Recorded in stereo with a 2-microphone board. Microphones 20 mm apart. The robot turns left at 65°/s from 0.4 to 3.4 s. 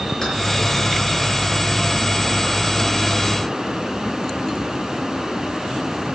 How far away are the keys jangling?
About 4.5 m.